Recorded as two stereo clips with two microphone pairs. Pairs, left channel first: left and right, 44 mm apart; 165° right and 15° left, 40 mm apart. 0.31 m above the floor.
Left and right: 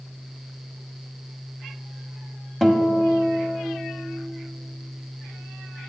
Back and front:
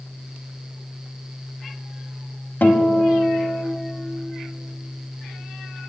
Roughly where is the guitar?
Behind.